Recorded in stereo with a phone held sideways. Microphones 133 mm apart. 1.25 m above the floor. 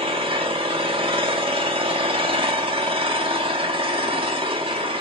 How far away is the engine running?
About 1.0 m.